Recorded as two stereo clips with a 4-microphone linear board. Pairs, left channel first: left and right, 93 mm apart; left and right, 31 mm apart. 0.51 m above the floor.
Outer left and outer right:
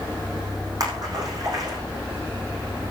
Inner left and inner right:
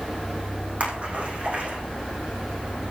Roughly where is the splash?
Right.